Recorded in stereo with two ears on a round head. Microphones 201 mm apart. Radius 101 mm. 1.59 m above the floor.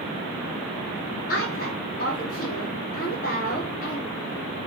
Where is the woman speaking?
40° left (ahead or behind), 3 m.